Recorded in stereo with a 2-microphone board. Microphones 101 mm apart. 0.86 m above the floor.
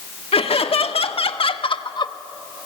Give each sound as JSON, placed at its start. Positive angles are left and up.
{"t": 0.3, "sound": "laughter", "side_deg": 70, "distance_m": 1.7}